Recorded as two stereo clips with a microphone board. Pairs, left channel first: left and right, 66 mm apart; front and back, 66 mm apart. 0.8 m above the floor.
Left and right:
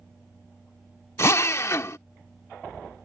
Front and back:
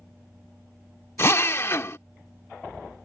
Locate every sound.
1.2 s a drill: 45° left